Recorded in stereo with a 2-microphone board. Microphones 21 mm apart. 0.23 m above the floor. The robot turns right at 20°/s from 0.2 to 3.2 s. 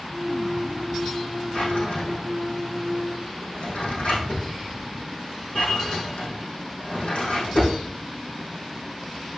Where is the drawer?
55° left (ahead or behind), 4.5 m; by 7.8 s 85° left, 4.5 m.